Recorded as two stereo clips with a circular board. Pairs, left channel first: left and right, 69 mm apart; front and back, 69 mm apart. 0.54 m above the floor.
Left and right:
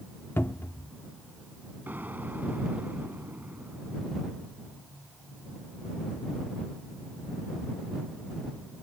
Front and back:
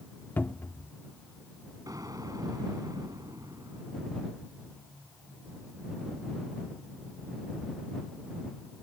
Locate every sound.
0.4 s a cupboard door: 50° left
1.9 s an explosion: 155° right